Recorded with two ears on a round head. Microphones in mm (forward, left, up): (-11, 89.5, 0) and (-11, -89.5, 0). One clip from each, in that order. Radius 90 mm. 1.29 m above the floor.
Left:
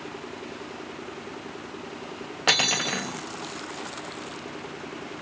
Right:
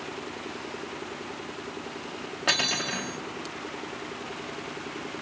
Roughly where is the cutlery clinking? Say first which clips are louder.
Left 3 dB; centre.